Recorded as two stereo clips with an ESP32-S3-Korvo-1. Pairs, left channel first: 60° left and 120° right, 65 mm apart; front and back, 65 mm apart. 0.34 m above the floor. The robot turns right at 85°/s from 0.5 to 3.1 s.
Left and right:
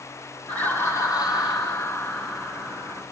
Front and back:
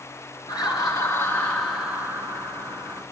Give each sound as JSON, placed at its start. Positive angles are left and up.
{"t": 0.5, "sound": "laughter", "azimuth_deg": -10, "distance_m": 4.0}